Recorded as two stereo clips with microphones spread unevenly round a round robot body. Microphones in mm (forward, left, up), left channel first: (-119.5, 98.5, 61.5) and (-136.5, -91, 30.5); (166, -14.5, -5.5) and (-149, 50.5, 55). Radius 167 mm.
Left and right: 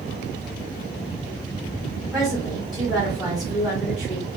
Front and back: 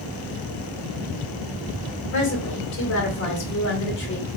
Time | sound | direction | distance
2.1 | a woman speaking | 15° right | 1.7 m